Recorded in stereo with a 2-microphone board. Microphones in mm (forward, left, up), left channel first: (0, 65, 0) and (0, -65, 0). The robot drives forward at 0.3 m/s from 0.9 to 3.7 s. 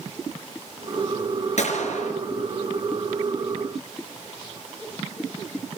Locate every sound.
1.6 s a gunshot: 65° left (ahead or behind), 4.5 m